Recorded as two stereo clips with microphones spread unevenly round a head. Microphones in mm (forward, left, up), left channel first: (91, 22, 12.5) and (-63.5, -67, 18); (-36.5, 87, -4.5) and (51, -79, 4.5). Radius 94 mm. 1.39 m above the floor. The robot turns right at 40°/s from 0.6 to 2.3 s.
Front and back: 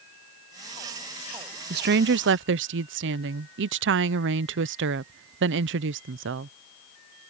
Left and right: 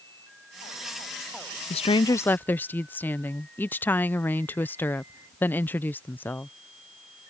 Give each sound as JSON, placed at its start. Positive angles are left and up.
{"t": 1.7, "sound": "a woman speaking", "azimuth_deg": 175}